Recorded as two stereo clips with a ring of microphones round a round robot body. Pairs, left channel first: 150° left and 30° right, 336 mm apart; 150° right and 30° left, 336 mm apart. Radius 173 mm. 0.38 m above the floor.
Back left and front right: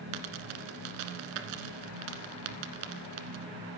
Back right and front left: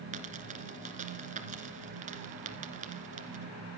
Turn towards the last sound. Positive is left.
turn(degrees=-40)